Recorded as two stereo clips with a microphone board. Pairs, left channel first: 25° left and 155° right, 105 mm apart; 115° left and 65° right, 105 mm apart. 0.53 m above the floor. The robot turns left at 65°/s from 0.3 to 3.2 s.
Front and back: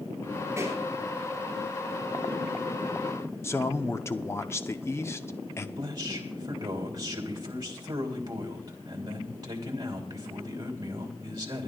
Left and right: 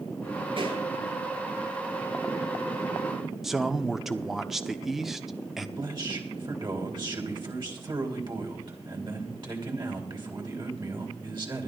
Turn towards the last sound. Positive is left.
turn(degrees=-110)